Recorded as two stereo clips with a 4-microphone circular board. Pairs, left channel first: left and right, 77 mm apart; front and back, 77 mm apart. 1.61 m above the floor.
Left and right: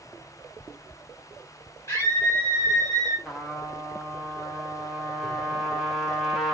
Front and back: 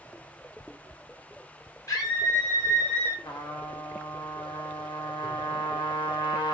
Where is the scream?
40° left, 1.2 m; by 3.1 s 60° right, 1.2 m.